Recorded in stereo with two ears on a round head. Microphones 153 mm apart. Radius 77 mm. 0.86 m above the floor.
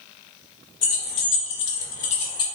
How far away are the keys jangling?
About 1.0 m.